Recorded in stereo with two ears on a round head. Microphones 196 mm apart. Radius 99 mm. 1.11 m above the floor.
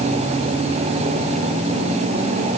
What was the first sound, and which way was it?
Only background noise.